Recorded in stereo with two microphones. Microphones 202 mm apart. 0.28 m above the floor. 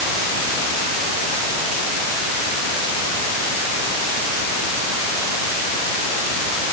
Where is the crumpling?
I don't hear crumpling.